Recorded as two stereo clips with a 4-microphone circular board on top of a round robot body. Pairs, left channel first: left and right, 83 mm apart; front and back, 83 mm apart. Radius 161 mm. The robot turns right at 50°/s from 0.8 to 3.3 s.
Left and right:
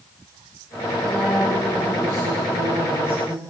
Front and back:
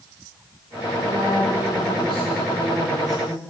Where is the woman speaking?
165° left, 6 m; by 3.4 s 85° right, 6 m.